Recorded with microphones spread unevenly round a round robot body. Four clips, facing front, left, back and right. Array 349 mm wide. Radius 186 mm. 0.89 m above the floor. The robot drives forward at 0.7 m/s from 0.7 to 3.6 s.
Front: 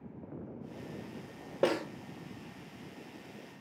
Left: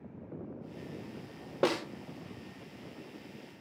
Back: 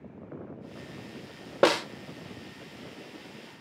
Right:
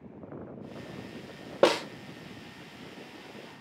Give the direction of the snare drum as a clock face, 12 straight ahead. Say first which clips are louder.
Right 6 dB, back 7 dB; 4 o'clock.